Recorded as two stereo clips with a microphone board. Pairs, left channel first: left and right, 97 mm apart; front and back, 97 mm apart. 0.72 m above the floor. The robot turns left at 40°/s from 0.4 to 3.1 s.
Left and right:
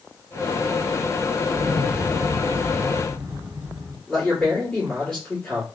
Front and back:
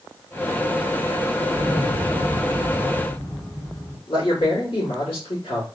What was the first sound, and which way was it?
An explosion, 35° left.